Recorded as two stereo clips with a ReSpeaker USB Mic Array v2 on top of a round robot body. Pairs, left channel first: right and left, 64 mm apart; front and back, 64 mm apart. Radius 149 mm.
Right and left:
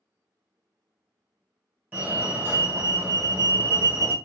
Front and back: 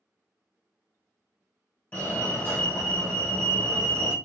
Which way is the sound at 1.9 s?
45° left.